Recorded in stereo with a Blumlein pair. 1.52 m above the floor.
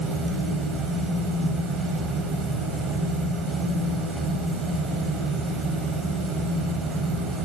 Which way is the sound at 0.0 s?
15° right.